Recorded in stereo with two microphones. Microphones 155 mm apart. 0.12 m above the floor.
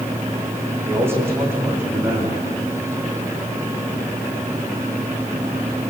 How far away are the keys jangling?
No keys jangling in this recording.